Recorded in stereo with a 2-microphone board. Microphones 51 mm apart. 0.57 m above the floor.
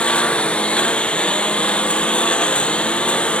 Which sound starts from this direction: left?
A lawn mower, at 0.0 s.